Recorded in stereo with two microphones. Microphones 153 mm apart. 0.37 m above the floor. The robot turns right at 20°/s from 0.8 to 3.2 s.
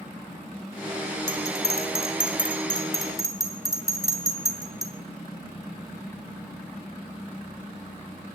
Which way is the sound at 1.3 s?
45° left (ahead or behind).